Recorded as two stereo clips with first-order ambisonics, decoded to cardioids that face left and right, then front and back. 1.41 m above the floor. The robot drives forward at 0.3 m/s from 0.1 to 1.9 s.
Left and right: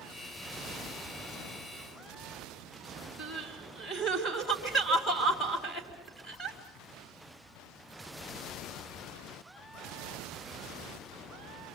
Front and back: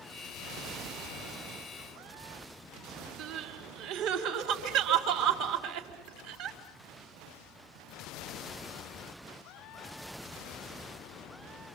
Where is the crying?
160° left, 4 m.